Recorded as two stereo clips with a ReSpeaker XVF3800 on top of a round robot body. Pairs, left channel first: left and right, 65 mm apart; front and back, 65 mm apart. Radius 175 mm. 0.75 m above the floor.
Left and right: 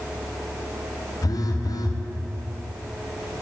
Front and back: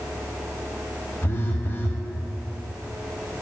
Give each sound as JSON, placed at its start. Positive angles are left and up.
{"t": 1.2, "sound": "a phone buzzing", "azimuth_deg": 60, "distance_m": 1.0}